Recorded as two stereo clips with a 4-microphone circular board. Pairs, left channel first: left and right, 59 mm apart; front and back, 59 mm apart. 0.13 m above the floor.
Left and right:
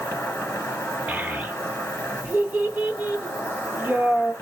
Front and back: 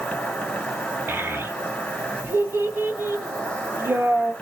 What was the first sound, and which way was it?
An insect, 60° left.